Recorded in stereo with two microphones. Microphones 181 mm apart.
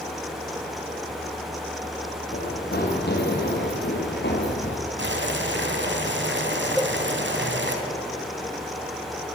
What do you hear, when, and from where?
2.3 s running footsteps: 55° left (ahead or behind), 5 m; by 4.8 s 70° left (ahead or behind), 4.5 m
5.0 s boiling: 75° right (ahead or behind), 3 m
6.8 s a cowbell: centre (ahead or behind), 1.5 m